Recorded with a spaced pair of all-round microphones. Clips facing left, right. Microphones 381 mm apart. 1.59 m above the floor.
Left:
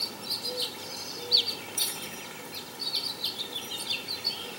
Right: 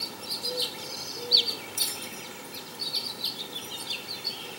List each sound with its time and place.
1.8 s a bell: 40° right (ahead or behind), 2.0 m